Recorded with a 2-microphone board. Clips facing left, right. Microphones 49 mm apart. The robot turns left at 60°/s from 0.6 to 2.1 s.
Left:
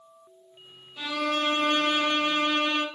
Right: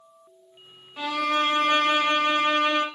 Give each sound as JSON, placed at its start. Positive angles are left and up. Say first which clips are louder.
{"t": 1.0, "sound": "a violin", "louder": "right 3 dB", "azimuth_deg": -75, "distance_m": 1.0}